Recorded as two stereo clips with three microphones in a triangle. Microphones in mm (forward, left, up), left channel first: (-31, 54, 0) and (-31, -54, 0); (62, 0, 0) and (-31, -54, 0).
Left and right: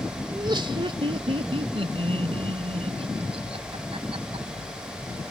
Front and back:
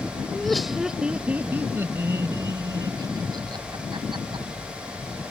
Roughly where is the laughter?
Ahead right.